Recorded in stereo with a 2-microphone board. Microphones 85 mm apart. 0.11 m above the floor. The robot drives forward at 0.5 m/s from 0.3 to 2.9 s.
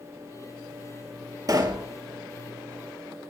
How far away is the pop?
About 0.8 m.